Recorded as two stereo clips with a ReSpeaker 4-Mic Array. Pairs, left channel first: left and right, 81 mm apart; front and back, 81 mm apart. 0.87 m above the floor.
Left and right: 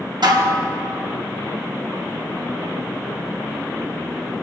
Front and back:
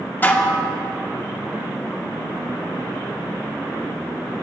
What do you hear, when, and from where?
0.2 s dishes clattering: 65° right, 0.9 m